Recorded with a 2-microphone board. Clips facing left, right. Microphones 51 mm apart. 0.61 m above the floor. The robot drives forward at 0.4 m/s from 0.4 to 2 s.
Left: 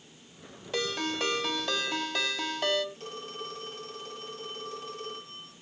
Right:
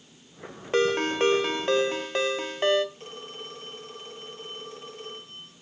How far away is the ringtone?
About 1.3 m.